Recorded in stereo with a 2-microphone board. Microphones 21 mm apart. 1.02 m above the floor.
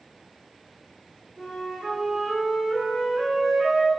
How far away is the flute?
About 2.0 m.